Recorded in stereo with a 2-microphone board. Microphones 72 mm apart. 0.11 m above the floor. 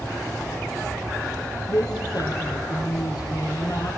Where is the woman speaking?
65° left (ahead or behind), 3.5 m.